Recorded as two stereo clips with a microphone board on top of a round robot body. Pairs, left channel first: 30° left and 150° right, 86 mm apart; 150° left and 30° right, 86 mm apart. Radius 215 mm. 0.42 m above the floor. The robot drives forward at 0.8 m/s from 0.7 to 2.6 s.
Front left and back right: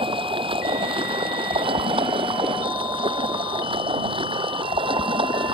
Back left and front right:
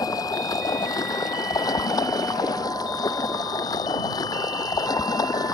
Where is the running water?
160° right; by 5.5 s 165° right.